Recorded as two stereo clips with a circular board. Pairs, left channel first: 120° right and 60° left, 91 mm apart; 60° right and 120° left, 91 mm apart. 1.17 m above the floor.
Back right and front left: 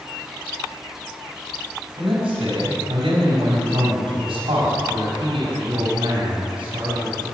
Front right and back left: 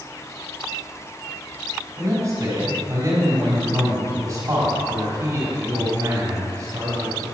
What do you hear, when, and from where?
2.0 s a man speaking: 70° left, 4 m